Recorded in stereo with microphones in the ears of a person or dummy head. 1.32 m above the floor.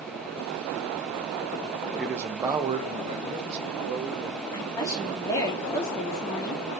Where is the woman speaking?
15° left (ahead or behind), 2 m.